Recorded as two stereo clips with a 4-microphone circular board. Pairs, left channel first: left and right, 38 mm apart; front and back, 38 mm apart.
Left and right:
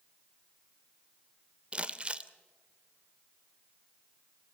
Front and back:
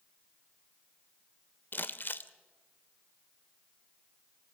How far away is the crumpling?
About 0.8 m.